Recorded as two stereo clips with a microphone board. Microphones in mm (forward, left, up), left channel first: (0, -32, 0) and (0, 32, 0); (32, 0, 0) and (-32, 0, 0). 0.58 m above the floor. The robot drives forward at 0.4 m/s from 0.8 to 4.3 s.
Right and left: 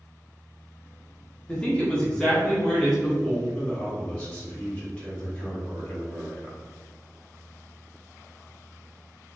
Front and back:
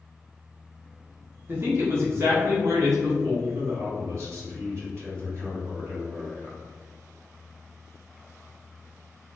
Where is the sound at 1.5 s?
155° right, 1.0 m; by 3.3 s 170° right, 1.5 m.